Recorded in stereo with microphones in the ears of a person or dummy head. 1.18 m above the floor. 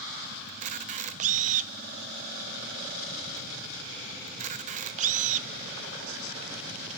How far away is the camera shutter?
About 0.5 m.